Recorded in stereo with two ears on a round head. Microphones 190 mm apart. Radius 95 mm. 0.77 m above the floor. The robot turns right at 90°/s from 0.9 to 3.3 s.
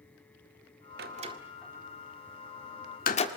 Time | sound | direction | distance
1.0 | a door slam | 50° right (ahead or behind) | 1.7 m